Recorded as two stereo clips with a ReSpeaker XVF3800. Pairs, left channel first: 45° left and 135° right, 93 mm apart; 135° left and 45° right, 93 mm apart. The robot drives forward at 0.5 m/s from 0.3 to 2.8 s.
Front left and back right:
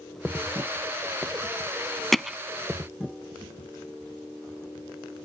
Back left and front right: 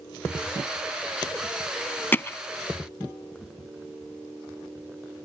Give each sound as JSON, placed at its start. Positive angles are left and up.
{"t": 2.1, "sound": "hammering", "azimuth_deg": 125}